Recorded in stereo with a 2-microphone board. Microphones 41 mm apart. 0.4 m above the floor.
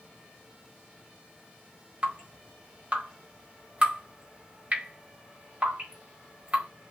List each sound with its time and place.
2.0 s dripping: 35° right (ahead or behind), 1.7 m